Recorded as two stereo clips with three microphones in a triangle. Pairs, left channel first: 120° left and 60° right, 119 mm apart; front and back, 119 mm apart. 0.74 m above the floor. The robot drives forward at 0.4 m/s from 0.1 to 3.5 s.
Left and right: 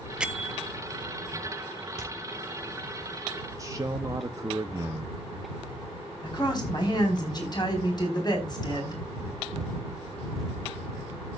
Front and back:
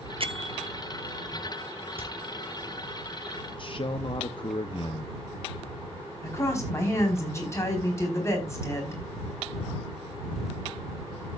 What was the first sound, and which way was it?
A bell, 140° right.